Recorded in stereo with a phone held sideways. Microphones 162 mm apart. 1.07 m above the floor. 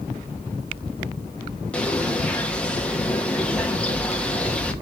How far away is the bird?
About 1.0 m.